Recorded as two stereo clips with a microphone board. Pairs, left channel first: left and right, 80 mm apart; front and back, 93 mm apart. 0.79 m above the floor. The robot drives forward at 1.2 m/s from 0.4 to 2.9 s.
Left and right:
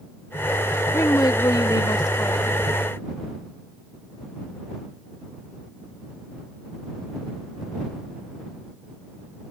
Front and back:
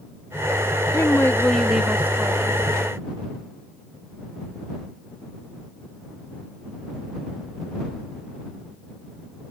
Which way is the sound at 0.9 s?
45° left.